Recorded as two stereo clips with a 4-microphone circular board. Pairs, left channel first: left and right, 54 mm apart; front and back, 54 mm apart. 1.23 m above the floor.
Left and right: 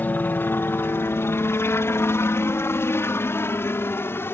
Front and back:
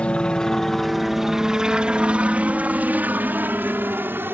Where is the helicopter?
60° left; by 4.3 s 130° left.